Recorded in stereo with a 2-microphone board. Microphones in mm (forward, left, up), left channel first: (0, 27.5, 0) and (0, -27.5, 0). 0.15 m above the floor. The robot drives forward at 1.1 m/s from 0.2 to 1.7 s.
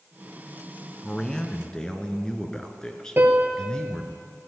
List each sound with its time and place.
1.0 s a man speaking: 15° left (ahead or behind), 1.3 m; by 4.2 s 10° left (ahead or behind), 1.8 m
3.2 s a piano: 40° right (ahead or behind), 2.0 m